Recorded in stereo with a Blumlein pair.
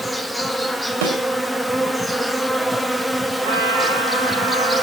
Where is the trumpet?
60° right, 9.5 m.